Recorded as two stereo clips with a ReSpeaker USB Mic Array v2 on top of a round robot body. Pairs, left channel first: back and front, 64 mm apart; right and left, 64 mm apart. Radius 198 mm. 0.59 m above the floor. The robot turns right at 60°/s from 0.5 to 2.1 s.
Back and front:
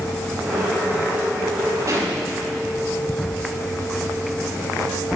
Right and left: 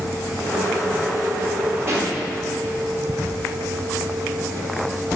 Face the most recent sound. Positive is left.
turn(degrees=55)